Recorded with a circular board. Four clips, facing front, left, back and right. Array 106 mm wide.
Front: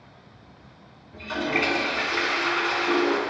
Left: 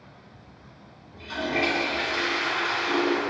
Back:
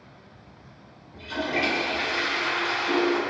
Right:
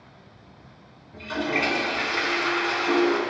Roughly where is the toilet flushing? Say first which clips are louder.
Right 1 dB, front 2 dB; ahead right.